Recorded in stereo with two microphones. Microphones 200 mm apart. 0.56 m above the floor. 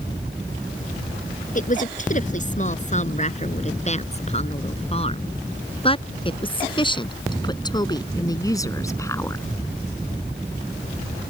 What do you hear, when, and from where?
1.6 s a woman speaking: 40° left (ahead or behind); by 9.4 s 10° left (ahead or behind)